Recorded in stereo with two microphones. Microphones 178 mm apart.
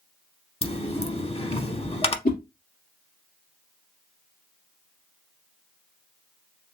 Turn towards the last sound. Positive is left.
turn(degrees=60)  # may be behind; listen again after turning